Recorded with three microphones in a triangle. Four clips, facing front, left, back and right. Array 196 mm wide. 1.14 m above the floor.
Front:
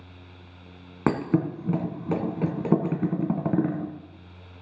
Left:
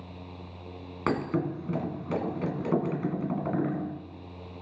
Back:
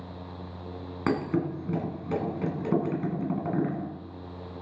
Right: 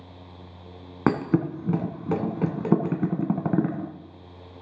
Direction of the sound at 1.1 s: 55° right.